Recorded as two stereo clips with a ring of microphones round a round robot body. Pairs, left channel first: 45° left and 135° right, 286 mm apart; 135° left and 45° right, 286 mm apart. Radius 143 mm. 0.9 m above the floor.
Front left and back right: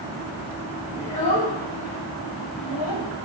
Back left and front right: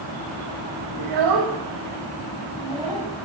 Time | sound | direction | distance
1.0 | a child speaking | 40° right | 0.5 m